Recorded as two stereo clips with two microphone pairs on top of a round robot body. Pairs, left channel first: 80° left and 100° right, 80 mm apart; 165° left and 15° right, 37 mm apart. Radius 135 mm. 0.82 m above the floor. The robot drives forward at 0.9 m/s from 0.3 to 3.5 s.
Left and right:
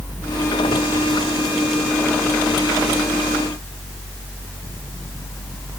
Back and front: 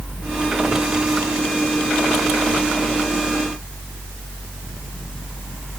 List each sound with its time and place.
Only background noise.